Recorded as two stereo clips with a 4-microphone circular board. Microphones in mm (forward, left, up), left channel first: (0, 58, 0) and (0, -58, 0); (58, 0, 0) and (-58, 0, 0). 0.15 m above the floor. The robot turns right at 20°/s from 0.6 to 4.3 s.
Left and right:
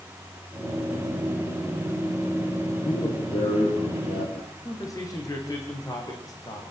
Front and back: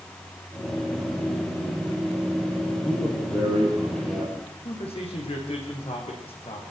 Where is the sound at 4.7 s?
30° left, 7.5 m.